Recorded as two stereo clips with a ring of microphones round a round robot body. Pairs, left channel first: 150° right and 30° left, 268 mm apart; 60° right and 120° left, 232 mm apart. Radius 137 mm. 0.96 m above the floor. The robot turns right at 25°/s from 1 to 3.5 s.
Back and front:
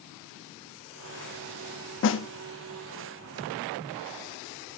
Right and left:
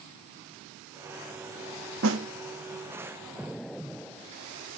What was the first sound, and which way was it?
A snare drum, 165° left.